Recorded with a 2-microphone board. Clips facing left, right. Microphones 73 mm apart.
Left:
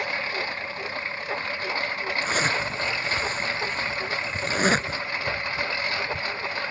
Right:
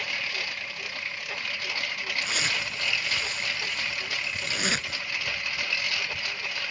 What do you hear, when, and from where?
0.0 s a lawn mower: 35° left (ahead or behind)
2.2 s a zipper: 40° left (ahead or behind)